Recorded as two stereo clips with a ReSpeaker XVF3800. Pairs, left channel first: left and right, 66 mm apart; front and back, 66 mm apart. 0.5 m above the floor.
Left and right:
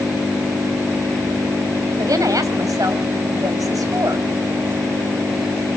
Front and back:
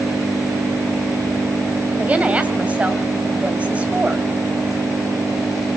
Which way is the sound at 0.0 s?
145° right.